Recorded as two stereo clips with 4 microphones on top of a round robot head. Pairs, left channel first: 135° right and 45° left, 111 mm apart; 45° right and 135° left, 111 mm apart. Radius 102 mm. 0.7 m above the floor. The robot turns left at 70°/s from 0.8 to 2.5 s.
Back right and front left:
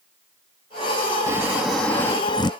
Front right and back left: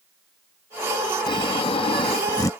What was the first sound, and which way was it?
Snoring, 15° right.